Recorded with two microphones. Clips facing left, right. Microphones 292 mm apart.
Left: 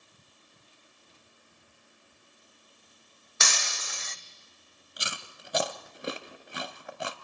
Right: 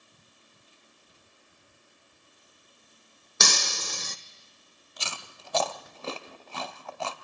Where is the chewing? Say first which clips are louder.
Even; 20° left (ahead or behind), 1.1 m.